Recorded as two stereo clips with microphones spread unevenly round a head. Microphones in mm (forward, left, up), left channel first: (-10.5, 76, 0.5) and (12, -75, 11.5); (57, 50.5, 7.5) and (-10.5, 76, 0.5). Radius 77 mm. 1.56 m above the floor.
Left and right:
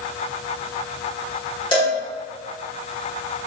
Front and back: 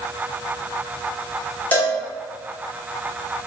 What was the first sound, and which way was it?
A cowbell, 40° left.